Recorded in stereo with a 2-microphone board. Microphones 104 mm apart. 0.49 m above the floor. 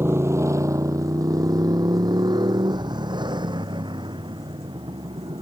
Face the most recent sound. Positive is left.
turn(degrees=-50)  # may be behind; listen again after turning